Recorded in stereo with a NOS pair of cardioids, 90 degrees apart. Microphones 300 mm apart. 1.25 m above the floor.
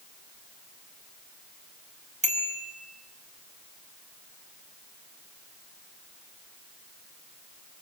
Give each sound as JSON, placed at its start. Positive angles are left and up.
{"t": 2.2, "sound": "a bicycle bell", "azimuth_deg": -25, "distance_m": 5.5}